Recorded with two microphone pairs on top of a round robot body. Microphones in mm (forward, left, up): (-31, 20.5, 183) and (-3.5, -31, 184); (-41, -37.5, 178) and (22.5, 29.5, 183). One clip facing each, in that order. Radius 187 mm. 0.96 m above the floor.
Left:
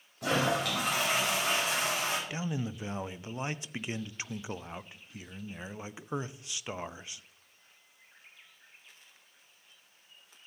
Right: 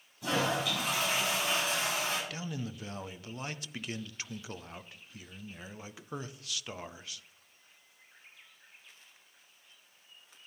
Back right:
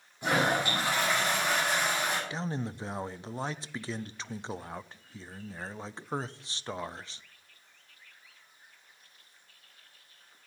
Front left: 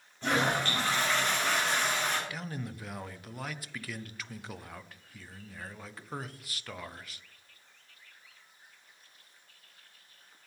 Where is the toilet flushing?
150° left, 4 m.